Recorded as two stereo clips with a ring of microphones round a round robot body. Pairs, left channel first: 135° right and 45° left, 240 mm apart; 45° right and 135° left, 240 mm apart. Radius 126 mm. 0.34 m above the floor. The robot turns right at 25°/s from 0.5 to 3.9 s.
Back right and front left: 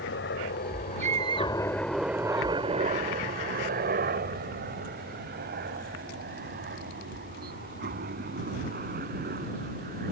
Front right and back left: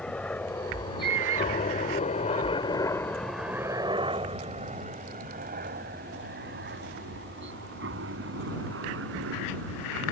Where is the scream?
105° left; by 2.5 s 140° left.